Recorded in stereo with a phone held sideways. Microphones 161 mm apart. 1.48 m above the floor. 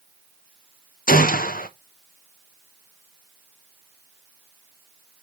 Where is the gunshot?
60° left (ahead or behind), 0.8 m.